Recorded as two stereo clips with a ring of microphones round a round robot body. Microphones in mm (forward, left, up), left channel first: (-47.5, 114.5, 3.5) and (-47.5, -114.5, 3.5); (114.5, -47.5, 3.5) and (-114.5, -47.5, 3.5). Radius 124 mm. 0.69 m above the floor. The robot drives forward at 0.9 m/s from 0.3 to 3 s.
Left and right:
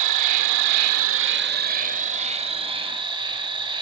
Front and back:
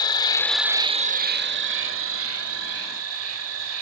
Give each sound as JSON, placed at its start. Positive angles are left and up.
{"t": 0.0, "sound": "an insect", "azimuth_deg": -75, "distance_m": 0.8}